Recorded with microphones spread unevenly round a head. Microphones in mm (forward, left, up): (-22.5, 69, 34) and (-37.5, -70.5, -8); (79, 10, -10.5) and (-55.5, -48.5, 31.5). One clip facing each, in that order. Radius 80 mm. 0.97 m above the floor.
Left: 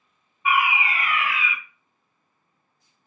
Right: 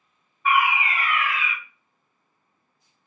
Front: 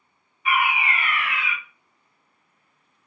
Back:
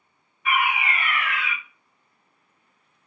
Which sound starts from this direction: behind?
A fire alarm, at 0.5 s.